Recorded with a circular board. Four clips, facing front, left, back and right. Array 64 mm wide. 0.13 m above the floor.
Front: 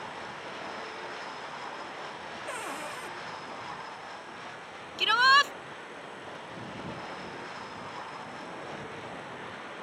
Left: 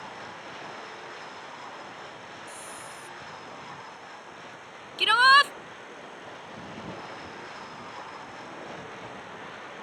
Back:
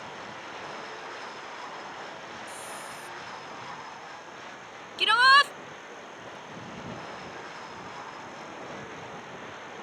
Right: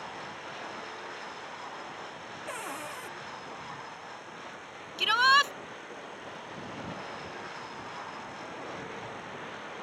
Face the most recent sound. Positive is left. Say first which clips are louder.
# left 5 dB, back 3 dB
turn(degrees=120)